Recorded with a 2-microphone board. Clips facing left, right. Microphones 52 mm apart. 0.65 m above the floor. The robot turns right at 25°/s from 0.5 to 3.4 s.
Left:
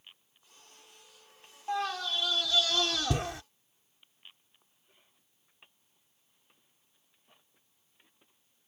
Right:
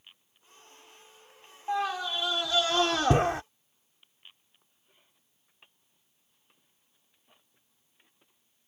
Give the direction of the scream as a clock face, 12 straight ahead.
6 o'clock.